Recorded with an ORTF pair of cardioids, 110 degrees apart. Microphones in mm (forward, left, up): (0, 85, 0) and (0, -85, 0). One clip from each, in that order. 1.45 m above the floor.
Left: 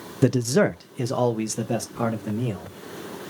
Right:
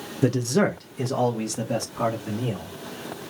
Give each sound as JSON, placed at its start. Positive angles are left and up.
{"t": 0.2, "sound": "a man speaking", "azimuth_deg": 30, "distance_m": 0.5}